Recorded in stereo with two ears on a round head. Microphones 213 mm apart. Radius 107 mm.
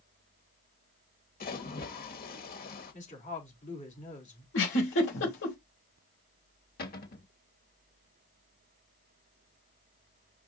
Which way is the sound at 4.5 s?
50° left (ahead or behind).